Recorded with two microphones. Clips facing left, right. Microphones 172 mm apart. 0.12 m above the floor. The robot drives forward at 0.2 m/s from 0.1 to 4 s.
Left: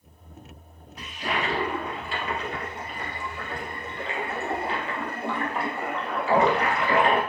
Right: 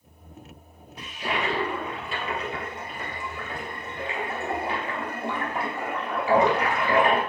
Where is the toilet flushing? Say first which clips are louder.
Even; 30° right (ahead or behind), 1.6 m; by 7.2 s 20° right (ahead or behind), 2 m.